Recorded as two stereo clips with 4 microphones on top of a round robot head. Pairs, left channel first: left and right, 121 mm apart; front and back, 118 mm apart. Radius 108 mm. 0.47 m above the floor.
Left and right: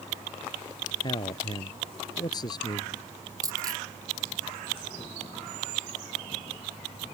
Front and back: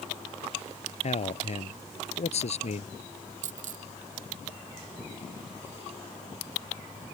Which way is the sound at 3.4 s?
150° right.